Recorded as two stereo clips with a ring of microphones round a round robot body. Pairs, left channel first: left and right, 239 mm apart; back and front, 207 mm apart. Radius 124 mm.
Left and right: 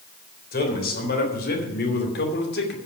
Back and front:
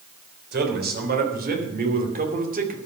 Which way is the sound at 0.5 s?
40° left.